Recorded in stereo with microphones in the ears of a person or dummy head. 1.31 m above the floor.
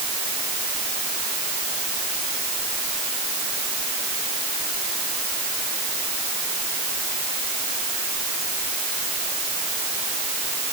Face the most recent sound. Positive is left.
No sound to turn to.